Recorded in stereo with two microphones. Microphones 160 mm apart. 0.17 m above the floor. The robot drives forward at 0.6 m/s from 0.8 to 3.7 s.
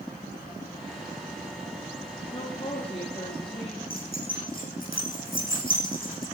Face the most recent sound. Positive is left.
turn(degrees=65)  # may be behind; listen again after turning